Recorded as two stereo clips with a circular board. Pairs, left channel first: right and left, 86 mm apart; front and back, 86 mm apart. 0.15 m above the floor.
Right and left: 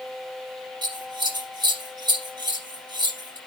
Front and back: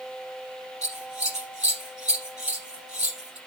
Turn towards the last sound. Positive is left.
turn(degrees=100)